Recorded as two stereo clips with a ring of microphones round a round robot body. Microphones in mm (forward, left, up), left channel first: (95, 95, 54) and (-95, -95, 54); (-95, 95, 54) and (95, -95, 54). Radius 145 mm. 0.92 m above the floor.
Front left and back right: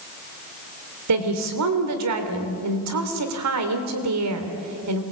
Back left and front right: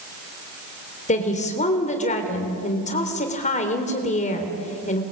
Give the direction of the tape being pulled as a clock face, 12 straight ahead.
I don't hear tape being pulled.